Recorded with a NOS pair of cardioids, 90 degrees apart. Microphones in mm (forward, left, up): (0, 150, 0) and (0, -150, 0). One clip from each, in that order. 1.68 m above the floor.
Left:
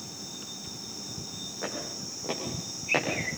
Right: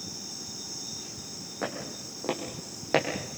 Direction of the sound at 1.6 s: 55° right.